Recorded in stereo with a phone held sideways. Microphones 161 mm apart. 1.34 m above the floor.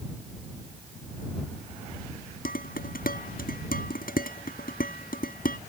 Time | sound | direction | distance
2.5 | dishes clattering | 65° left (ahead or behind) | ?